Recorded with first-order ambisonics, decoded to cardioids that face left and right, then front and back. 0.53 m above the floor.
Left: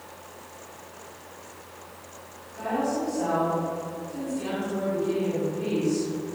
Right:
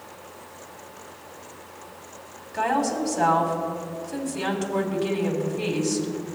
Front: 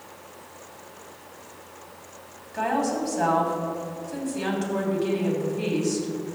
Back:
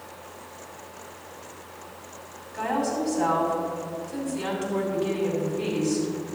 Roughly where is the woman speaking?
Right.